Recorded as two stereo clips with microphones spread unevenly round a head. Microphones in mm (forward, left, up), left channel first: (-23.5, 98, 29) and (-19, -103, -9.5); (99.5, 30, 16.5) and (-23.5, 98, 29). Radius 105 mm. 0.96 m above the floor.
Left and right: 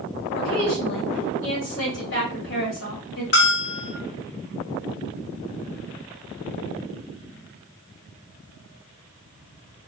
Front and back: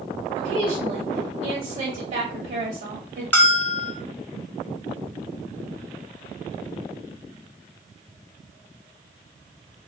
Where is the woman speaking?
115° left, 1.6 m.